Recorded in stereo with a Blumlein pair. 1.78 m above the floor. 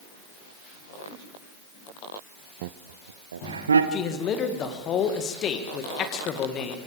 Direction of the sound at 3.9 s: 30° left.